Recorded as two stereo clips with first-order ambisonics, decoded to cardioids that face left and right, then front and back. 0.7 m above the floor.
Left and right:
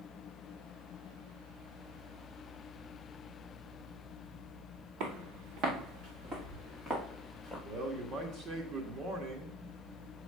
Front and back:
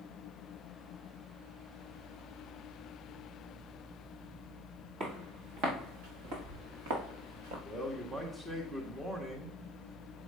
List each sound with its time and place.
5.0 s footsteps: 135° right, 4.5 m; by 7.5 s straight behind, 4 m
7.7 s a man speaking: 115° right, 1.3 m